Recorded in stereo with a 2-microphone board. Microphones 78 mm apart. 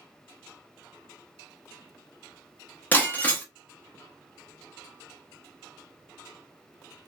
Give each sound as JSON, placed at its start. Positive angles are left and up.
{"t": 2.9, "sound": "breaking glass", "side_deg": 25, "distance_m": 0.8}